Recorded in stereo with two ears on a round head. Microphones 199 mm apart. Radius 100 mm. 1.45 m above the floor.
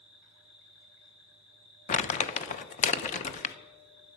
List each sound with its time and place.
0.0 s an insect: 25° left (ahead or behind), 9 m
1.9 s crumpling: 35° left (ahead or behind), 0.8 m